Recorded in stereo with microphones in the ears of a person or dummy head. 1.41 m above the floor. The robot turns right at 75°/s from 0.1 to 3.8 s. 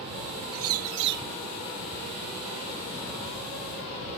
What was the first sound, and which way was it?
A bird, 100° right.